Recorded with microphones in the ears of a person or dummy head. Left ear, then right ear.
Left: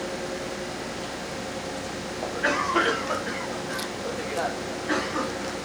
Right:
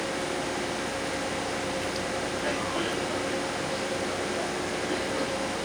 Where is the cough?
60° left (ahead or behind), 0.9 m.